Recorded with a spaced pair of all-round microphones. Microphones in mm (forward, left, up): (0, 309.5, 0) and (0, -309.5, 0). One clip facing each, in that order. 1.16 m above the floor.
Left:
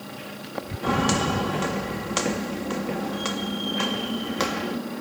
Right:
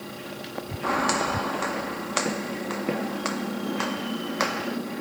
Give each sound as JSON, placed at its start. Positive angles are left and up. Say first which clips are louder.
{"t": 0.8, "sound": "footsteps", "louder": "left 4 dB", "side_deg": 65}